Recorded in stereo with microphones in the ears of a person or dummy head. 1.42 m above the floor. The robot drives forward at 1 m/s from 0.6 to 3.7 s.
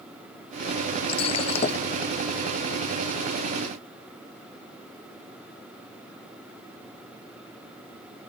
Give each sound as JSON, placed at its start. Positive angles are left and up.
{"t": 1.1, "sound": "breaking glass", "side_deg": 40}